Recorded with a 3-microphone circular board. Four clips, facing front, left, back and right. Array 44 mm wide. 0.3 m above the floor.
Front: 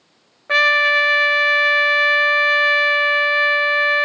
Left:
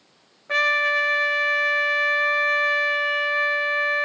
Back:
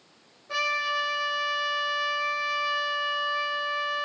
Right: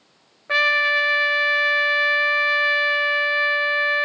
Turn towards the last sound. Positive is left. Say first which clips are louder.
# right 2 dB, front 13 dB
turn(degrees=-20)